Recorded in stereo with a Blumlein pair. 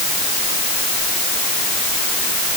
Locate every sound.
Only background noise.